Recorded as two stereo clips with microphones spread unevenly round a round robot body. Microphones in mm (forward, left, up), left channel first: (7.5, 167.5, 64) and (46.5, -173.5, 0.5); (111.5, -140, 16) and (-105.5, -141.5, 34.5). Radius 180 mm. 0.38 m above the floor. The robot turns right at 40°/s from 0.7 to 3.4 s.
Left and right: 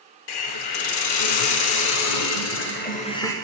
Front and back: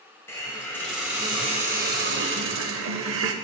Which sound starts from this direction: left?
A hiss, at 0.3 s.